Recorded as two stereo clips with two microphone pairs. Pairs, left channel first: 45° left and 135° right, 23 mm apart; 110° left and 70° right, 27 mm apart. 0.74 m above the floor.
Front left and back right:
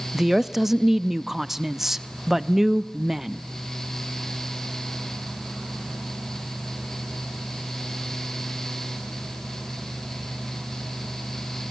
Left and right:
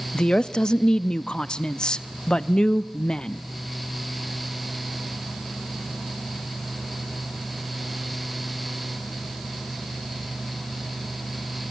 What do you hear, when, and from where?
0.1 s a woman speaking: 150° left, 0.6 m